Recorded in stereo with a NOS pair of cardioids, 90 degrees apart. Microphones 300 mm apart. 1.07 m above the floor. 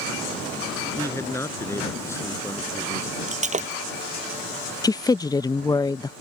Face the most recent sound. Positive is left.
turn(degrees=15)